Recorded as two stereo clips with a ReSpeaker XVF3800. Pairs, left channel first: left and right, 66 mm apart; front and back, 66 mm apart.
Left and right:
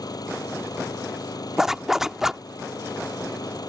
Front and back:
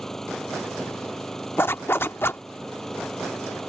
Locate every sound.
0.0 s an engine running: 85° left
1.6 s a zipper: 10° right